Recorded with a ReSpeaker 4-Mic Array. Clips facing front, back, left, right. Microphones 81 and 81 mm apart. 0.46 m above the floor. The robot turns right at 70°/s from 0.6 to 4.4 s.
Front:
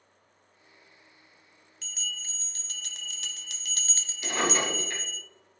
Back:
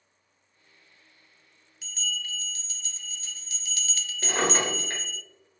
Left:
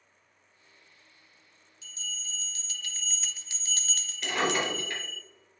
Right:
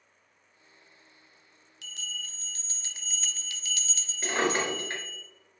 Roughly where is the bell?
Right.